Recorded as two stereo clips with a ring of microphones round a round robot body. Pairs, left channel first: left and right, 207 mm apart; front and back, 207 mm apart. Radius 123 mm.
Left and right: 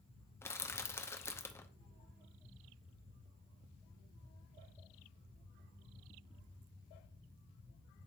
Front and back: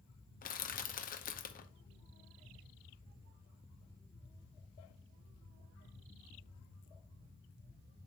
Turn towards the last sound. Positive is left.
turn(degrees=15)